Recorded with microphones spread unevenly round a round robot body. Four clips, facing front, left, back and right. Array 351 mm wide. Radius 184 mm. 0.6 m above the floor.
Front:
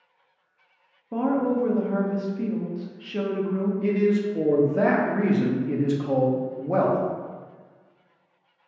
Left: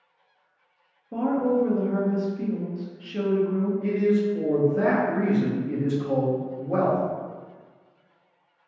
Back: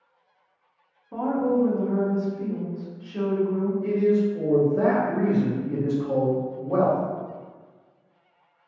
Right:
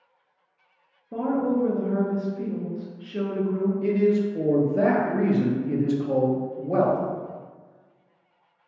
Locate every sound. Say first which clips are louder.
1.1 s a woman speaking: left 1 dB, even; 5° left, 0.7 m
3.8 s a man speaking: right 2 dB, back 1 dB; 30° right, 0.6 m